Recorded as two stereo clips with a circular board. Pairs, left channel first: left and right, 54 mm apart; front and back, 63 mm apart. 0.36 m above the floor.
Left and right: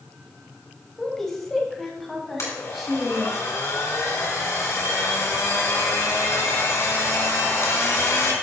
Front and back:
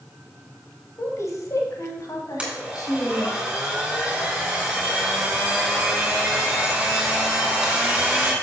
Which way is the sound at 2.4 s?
105° left.